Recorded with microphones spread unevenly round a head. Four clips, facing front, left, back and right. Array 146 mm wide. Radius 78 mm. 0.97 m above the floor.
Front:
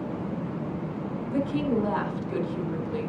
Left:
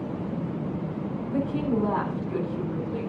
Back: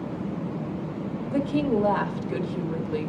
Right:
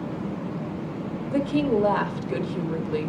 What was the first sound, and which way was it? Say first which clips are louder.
A woman speaking: right 4 dB, back 2 dB; 100° right.